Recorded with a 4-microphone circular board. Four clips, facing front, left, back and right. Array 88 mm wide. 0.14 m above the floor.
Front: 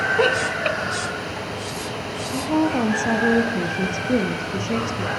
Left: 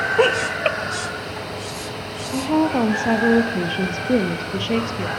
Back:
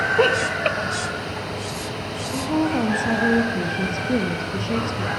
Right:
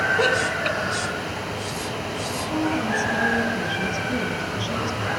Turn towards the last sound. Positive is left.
turn(degrees=75)